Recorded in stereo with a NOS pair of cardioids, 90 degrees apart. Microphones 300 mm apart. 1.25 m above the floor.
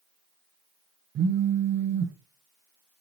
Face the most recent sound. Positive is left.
turn(degrees=-45)